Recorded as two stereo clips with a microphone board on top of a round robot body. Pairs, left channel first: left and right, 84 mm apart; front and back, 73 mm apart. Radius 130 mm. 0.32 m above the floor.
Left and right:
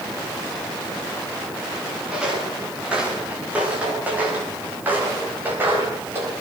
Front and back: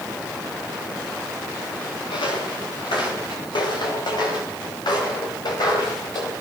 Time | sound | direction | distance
2.1 | footsteps | 10° right | 9.5 m